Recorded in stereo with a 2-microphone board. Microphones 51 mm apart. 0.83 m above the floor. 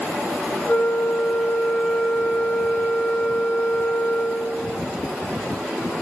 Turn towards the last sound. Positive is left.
turn(degrees=45)  # may be behind; listen again after turning